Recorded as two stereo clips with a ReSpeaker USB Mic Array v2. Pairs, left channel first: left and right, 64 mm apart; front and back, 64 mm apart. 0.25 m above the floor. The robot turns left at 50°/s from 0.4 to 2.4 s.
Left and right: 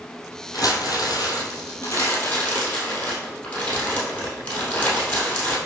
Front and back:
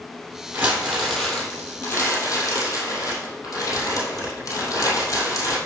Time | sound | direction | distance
0.5 | crumpling | 125° left | 2.5 m